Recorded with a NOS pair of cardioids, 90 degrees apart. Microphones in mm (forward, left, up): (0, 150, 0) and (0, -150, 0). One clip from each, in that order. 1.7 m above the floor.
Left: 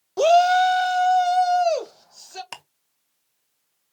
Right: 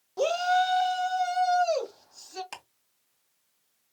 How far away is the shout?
About 0.6 m.